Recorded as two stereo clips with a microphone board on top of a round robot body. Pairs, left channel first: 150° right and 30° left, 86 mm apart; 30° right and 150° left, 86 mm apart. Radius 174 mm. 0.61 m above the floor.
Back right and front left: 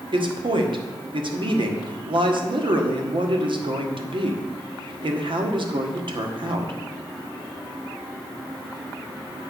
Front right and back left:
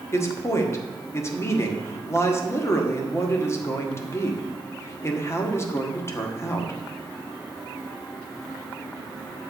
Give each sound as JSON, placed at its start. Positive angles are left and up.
{"t": 0.1, "sound": "a man speaking", "azimuth_deg": 25, "distance_m": 1.7}